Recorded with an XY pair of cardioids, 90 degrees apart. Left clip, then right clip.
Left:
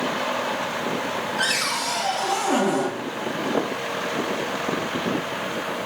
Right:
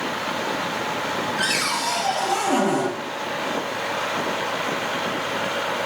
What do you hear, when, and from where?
1.4 s a cupboard door: 5° left, 1.8 m